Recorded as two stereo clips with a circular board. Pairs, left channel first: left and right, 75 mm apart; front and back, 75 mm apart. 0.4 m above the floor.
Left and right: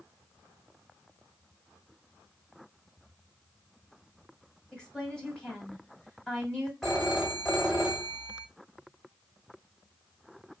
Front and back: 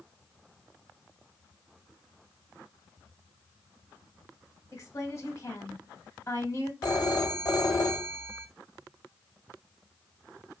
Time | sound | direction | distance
4.7 | a woman speaking | 20° left | 1.5 m
6.8 | a phone ringing | straight ahead | 1.4 m